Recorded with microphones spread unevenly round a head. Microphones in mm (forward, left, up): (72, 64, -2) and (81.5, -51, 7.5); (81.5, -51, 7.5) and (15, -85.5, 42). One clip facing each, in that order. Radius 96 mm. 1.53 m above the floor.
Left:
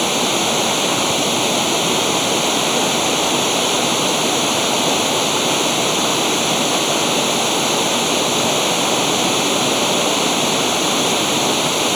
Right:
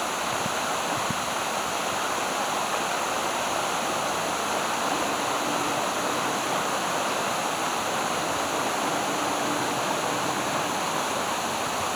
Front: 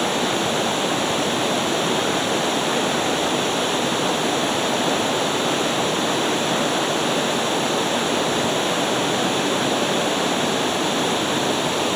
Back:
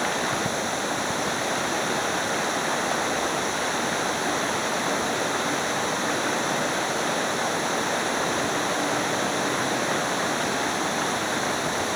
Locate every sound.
0.0 s running water: 90° left